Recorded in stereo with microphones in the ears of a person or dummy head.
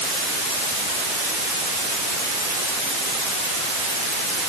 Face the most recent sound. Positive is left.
No sound to turn to.